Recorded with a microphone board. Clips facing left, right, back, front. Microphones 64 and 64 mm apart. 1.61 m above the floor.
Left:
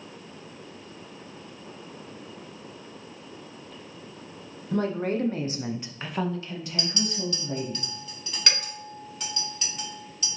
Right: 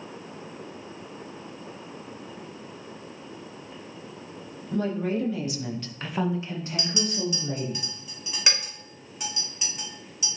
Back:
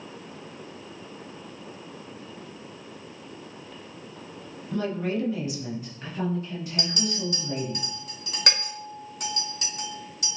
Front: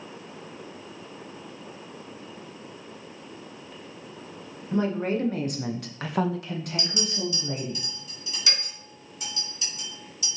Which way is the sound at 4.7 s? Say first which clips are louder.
Left 1 dB, front 2 dB; 65° left.